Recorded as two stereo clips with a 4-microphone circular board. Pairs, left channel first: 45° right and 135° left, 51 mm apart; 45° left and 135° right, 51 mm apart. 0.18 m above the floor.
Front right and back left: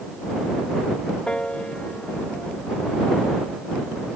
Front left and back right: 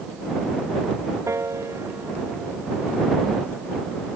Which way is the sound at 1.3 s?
115° right.